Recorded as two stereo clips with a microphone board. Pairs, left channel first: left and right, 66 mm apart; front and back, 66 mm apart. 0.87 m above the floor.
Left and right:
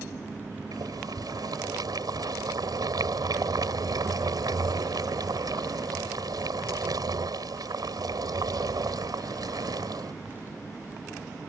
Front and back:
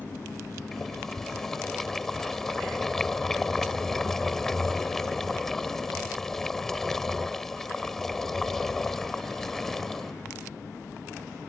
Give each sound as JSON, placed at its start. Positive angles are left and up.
{"t": 0.7, "sound": "boiling", "azimuth_deg": -85}